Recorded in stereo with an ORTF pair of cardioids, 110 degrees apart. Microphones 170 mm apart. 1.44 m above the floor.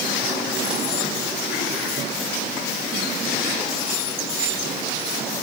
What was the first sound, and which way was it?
Only background noise.